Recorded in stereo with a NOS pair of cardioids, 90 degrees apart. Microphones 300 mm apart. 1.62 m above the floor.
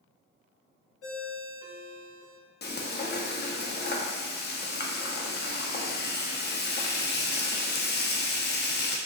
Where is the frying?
35° left, 1.0 m.